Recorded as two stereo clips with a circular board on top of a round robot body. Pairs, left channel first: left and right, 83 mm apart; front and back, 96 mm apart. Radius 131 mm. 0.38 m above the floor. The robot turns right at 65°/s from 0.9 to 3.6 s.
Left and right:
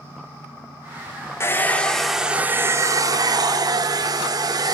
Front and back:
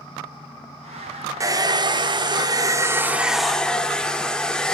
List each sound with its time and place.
1.4 s a hair dryer: 140° left, 0.7 m; by 4.8 s 80° right, 0.7 m